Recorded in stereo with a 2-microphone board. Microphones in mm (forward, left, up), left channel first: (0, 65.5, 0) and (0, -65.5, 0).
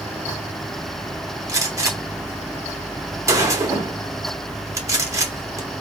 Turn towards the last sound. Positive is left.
turn(degrees=-25)  # may be behind; listen again after turning